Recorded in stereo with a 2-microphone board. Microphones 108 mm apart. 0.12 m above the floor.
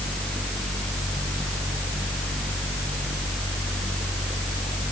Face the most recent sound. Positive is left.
No sound to turn to.